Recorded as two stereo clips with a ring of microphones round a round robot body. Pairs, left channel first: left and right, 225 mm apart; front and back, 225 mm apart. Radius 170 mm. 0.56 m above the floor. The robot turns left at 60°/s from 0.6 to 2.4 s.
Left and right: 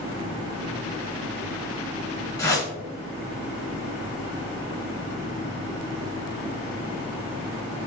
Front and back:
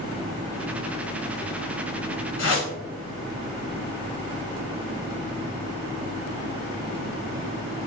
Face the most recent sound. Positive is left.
turn(degrees=15)